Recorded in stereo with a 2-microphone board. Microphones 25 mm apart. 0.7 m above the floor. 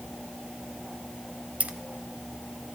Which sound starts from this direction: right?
Keys jangling, at 1.6 s.